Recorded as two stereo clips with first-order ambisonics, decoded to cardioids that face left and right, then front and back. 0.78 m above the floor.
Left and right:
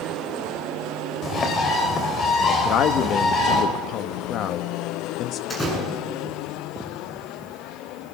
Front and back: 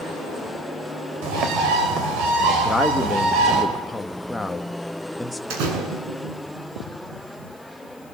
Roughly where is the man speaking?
Left.